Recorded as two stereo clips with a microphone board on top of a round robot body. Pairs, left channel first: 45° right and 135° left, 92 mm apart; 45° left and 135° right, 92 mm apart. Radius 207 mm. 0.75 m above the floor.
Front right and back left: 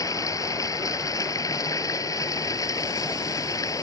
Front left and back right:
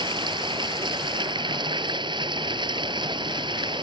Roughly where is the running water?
Right.